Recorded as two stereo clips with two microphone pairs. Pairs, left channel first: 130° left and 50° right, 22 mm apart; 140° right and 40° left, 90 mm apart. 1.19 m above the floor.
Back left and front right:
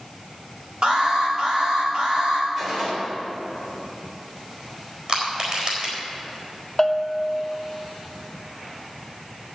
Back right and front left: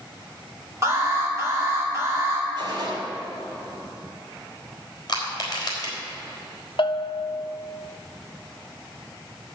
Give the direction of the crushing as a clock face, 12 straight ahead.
3 o'clock.